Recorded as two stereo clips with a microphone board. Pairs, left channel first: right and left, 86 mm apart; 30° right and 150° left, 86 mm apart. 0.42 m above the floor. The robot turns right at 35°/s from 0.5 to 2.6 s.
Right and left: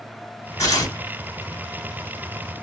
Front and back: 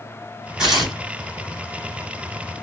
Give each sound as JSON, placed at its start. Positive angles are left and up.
{"t": 0.6, "sound": "tearing paper", "azimuth_deg": -130, "distance_m": 1.7}